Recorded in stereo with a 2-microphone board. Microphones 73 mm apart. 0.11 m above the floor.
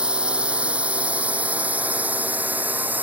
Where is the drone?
15° right (ahead or behind); by 3.0 s 25° right (ahead or behind).